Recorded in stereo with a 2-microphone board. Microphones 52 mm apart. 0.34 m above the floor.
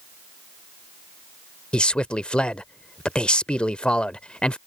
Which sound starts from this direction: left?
A man speaking, at 1.7 s.